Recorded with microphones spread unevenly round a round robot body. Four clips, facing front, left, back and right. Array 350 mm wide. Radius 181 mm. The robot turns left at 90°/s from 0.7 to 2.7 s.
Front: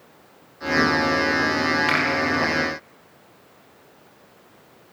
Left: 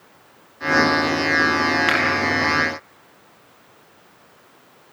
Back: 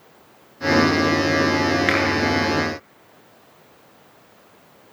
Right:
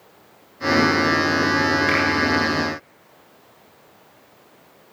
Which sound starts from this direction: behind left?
A finger snap, at 1.9 s.